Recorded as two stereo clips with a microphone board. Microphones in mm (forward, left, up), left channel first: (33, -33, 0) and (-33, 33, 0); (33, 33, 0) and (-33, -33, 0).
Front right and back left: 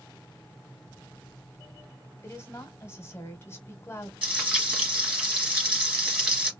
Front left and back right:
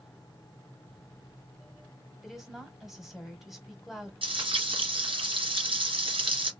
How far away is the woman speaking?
About 1.1 m.